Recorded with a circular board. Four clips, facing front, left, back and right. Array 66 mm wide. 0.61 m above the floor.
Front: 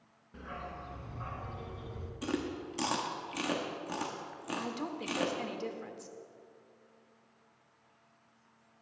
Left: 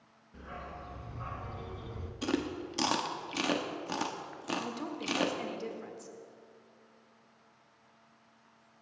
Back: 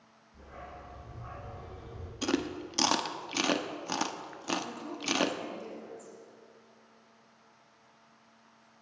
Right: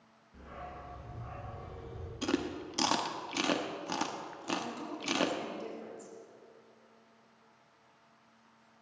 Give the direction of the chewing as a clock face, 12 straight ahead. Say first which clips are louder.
Even, back 4 dB; 6 o'clock.